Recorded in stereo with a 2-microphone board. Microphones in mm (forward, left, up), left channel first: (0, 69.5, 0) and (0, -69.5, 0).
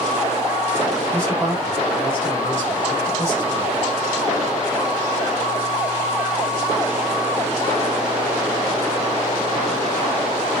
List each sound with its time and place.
1.1 s a man speaking: 20° right (ahead or behind), 1.5 m